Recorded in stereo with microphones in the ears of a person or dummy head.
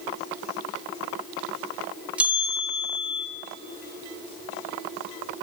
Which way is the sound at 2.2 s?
10° right (ahead or behind).